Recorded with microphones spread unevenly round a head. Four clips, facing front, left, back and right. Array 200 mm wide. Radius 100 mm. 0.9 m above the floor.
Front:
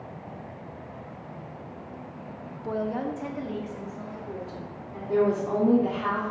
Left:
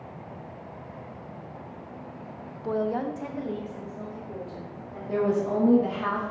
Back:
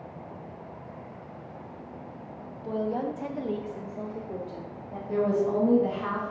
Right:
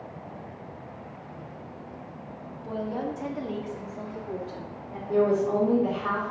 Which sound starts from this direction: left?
A woman speaking, at 5.1 s.